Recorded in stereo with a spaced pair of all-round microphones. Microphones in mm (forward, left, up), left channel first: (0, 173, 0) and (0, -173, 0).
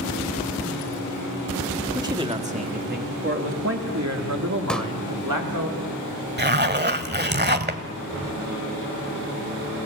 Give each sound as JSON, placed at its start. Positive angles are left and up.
{"t": 1.9, "sound": "a man speaking", "side_deg": -10, "distance_m": 2.5}
{"t": 4.7, "sound": "a pop", "side_deg": 0, "distance_m": 1.8}
{"t": 6.4, "sound": "a zipper", "side_deg": -30, "distance_m": 1.2}